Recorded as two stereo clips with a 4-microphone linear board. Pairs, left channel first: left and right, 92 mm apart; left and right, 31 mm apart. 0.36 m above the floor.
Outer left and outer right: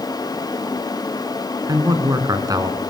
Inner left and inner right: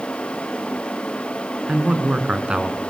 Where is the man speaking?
40° right (ahead or behind), 4.5 m.